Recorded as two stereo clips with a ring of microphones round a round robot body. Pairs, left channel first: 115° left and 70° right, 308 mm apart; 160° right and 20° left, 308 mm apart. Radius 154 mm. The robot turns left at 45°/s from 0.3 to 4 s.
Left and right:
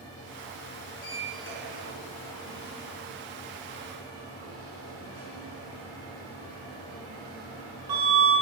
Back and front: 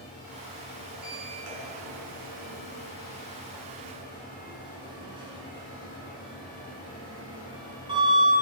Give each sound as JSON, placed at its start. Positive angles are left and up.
{"t": 0.9, "sound": "a sliding door", "azimuth_deg": 85, "distance_m": 3.5}